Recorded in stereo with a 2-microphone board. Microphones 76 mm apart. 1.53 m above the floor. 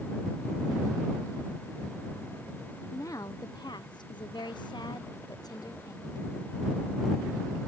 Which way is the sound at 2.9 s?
45° left (ahead or behind).